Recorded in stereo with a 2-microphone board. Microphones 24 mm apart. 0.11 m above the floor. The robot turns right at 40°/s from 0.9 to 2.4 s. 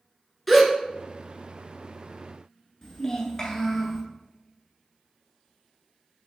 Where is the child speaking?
25° left (ahead or behind), 1.0 m.